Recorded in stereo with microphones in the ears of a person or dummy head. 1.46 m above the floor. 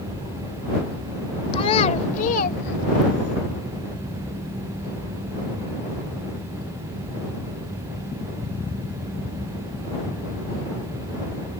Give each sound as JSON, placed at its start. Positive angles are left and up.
{"t": 1.5, "sound": "a child speaking", "side_deg": 30}